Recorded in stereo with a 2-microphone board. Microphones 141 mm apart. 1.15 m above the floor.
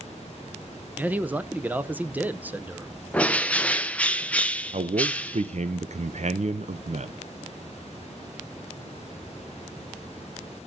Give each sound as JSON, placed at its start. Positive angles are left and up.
{"t": 1.0, "sound": "a man speaking", "side_deg": -15, "distance_m": 0.6}
{"t": 3.1, "sound": "a bird", "side_deg": 10, "distance_m": 0.7}
{"t": 4.7, "sound": "a man speaking", "side_deg": -60, "distance_m": 0.5}